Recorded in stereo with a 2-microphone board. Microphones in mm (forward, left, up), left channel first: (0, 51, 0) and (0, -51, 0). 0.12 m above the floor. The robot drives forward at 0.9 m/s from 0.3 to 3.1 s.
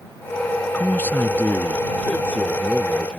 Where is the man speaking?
15° left (ahead or behind); by 3.2 s 10° left (ahead or behind).